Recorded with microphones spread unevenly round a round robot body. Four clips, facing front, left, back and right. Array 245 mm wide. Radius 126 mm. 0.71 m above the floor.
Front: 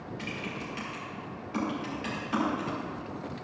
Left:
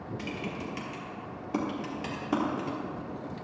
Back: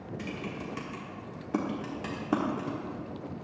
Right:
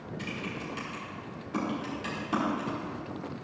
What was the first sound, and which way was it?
Typing on a keyboard, 155° left.